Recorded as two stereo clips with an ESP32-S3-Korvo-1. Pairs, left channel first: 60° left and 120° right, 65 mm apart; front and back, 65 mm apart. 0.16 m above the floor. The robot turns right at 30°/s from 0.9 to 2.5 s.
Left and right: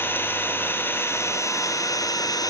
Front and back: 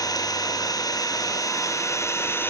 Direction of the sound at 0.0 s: 5° left.